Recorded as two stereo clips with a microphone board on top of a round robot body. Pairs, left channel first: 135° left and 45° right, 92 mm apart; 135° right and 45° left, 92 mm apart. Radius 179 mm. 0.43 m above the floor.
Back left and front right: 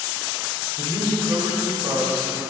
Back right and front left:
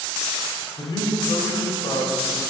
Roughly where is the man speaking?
Right.